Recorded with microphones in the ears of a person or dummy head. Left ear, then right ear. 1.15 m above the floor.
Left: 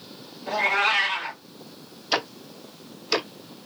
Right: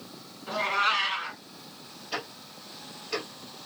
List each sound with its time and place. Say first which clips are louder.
0.5 s a cat meowing: left 4 dB; 40° left (ahead or behind), 1.2 m
2.1 s ticking: left 9 dB; 55° left (ahead or behind), 0.5 m